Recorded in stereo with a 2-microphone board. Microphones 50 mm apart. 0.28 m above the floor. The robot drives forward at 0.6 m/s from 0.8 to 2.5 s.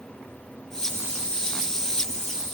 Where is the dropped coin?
I don't hear a dropped coin.